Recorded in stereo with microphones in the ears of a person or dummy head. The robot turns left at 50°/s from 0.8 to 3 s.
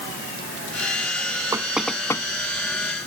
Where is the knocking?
10° right (ahead or behind); by 2.2 s 25° left (ahead or behind).